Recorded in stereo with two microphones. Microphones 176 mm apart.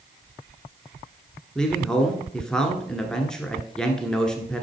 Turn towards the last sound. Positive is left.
turn(degrees=5)  # may be behind; listen again after turning